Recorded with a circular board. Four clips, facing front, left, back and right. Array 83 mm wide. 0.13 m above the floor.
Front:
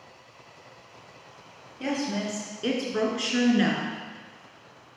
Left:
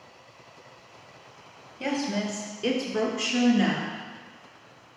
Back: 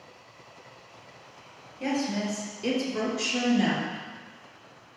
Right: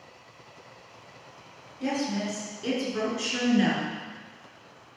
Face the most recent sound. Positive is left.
turn(degrees=-5)